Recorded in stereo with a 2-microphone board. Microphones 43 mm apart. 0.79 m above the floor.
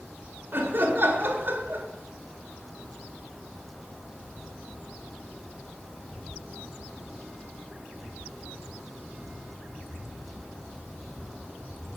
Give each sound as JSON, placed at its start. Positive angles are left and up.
{"t": 0.5, "sound": "laughter", "side_deg": -55, "distance_m": 1.8}